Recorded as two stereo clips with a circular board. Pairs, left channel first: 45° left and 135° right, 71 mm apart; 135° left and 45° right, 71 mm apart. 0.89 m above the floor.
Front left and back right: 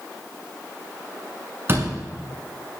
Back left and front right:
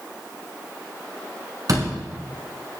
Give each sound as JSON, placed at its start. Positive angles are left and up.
{"t": 1.7, "sound": "a door slam", "azimuth_deg": -80, "distance_m": 6.0}